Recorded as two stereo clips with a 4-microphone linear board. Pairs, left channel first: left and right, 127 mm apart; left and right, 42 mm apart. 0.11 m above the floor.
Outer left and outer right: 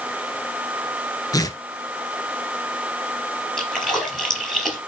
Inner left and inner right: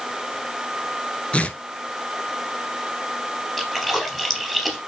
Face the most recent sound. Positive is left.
turn(degrees=5)  # may be behind; listen again after turning